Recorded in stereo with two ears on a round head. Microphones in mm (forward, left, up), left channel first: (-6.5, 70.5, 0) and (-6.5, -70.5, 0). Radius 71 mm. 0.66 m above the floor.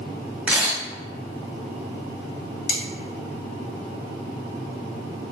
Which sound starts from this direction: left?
Cutlery clinking, at 2.7 s.